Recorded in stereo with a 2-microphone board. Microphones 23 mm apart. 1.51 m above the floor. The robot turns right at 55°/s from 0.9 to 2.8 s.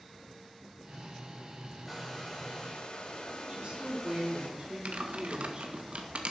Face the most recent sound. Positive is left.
turn(degrees=-60)  # may be behind; listen again after turning